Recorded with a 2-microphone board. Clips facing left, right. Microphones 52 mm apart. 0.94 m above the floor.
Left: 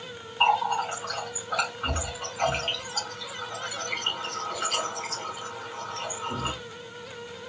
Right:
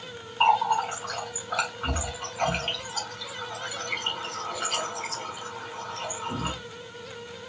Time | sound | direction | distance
0.4 | a running tap | centre (ahead or behind) | 2.5 m